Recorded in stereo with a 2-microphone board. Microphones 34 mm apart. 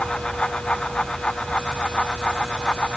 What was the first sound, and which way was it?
Only background noise.